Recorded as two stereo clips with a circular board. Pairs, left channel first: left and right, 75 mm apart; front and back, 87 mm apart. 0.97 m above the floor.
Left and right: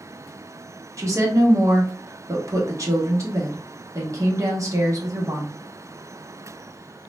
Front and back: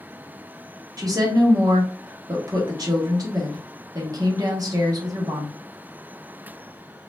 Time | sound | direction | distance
1.0 | a woman speaking | 135° right | 0.9 m